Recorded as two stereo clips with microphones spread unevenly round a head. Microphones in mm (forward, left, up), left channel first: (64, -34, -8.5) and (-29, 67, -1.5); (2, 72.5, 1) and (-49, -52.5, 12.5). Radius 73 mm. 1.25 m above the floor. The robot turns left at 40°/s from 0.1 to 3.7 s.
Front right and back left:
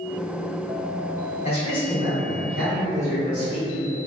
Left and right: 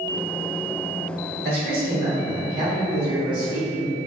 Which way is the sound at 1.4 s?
95° right.